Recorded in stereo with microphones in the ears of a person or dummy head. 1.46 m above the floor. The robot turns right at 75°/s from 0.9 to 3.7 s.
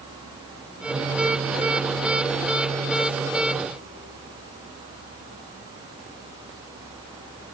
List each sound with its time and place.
Only background noise.